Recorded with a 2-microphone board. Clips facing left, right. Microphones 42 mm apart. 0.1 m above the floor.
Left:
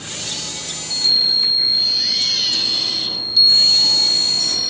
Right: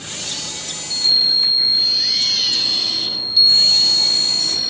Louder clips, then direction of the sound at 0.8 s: Right 1 dB; 5° right (ahead or behind).